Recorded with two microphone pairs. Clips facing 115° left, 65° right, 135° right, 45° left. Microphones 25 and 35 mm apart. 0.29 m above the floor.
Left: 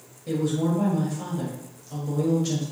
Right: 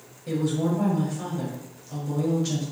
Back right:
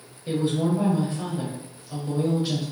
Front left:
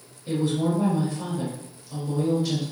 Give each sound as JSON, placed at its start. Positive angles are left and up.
{"t": 0.3, "sound": "a woman speaking", "azimuth_deg": -150, "distance_m": 0.9}